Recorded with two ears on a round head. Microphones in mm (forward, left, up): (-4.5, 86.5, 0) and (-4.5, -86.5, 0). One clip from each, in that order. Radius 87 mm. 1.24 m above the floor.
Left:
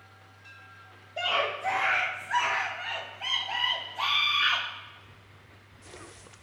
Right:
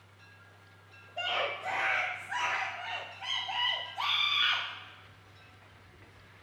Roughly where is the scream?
Left.